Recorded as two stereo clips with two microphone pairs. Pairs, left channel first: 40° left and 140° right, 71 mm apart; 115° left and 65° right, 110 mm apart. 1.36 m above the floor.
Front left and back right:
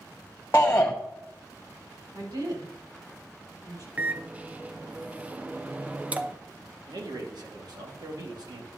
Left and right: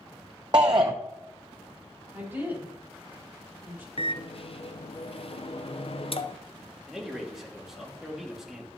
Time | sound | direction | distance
0.5 | a shout | 20° right | 0.6 m
2.1 | a woman speaking | 135° right | 4.5 m
4.0 | a microwave | 150° left | 0.5 m
6.9 | a man speaking | 150° right | 1.9 m